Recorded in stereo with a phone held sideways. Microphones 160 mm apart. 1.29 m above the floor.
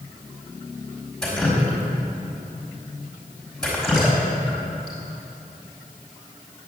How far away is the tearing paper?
I don't hear tearing paper.